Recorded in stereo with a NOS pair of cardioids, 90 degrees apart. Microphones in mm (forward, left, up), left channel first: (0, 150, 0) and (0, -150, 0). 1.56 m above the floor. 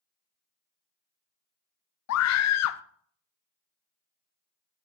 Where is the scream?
60° left, 0.6 m.